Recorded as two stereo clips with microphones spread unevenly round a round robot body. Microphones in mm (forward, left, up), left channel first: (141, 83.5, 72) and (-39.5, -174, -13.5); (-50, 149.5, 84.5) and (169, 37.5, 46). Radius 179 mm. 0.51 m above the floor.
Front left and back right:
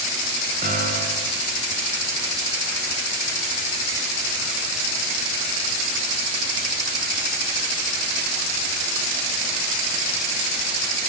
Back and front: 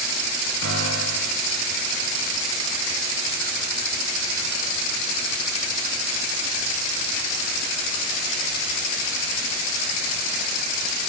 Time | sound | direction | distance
0.6 | a piano | 60° right | 5.5 m